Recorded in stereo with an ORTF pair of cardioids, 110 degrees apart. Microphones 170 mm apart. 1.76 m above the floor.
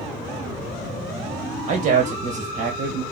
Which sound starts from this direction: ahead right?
A man speaking, at 1.7 s.